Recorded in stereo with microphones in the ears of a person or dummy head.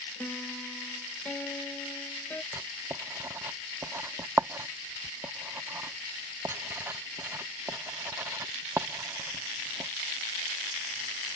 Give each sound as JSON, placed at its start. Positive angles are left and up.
{"t": 0.2, "sound": "a piano", "side_deg": 5}
{"t": 2.5, "sound": "writing", "side_deg": -15}